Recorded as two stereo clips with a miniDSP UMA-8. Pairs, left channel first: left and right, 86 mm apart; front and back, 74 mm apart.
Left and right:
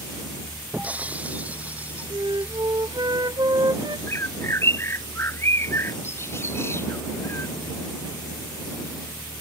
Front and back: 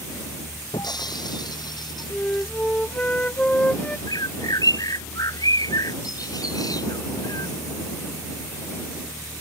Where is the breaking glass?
20° right.